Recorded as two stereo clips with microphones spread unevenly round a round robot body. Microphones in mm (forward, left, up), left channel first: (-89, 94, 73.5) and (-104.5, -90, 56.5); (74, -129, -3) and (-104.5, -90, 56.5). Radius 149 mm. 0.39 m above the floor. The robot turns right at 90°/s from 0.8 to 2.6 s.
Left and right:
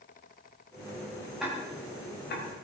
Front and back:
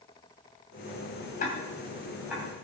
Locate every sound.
1.4 s ticking: 10° right, 2.5 m; by 2.5 s 85° left, 2.5 m